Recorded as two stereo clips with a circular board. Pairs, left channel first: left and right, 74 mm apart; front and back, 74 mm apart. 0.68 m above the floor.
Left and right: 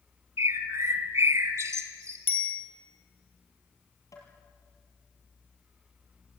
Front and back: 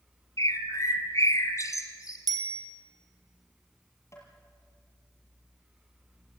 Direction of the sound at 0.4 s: 40° right.